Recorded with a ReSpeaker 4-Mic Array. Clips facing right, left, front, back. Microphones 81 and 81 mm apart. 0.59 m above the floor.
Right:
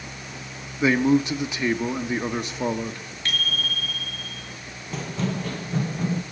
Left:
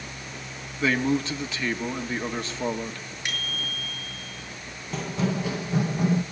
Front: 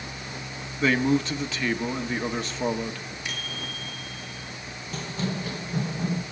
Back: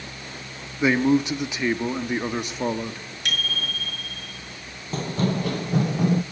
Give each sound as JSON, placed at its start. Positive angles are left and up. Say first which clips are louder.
{"t": 0.8, "sound": "a man speaking", "louder": "right 5 dB, back 3 dB", "azimuth_deg": -135, "distance_m": 0.9}
{"t": 3.2, "sound": "a bicycle bell", "louder": "right 5 dB, back 8 dB", "azimuth_deg": 165, "distance_m": 6.5}
{"t": 4.9, "sound": "running footsteps", "louder": "left 1 dB, back 6 dB", "azimuth_deg": 180, "distance_m": 0.7}